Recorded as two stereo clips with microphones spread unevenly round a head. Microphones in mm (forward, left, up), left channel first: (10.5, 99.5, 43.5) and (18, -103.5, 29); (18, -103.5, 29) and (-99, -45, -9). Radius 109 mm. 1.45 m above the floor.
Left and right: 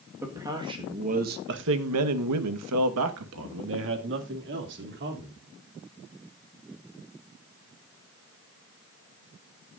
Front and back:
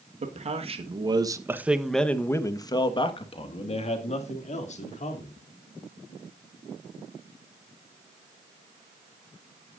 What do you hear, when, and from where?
0.2 s a man speaking: 170° right, 1.7 m; by 5.3 s 50° right, 3.5 m